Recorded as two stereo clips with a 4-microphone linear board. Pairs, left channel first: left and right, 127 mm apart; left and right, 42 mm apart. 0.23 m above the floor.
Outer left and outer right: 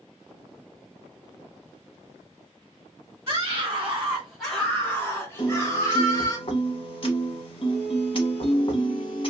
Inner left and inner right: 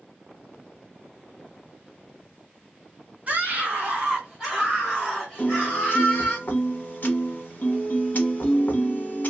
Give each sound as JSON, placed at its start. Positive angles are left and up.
{"t": 3.3, "sound": "a scream", "side_deg": -25, "distance_m": 1.3}
{"t": 5.4, "sound": "a piano", "side_deg": 50, "distance_m": 0.9}